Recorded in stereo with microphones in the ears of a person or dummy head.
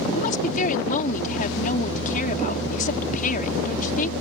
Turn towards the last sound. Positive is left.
turn(degrees=45)  # may be behind; listen again after turning